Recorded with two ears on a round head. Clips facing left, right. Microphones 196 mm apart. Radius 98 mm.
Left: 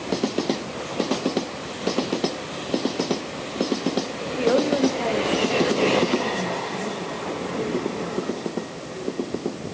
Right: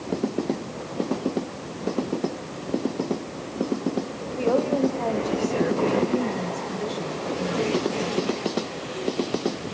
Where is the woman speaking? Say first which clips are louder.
Left 2 dB; 25° left (ahead or behind), 2.5 m; by 8.4 s 40° right (ahead or behind), 5.5 m.